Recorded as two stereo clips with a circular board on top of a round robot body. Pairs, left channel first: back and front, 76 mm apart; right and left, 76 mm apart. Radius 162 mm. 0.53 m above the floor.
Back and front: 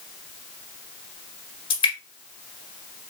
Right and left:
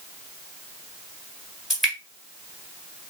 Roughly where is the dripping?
Behind.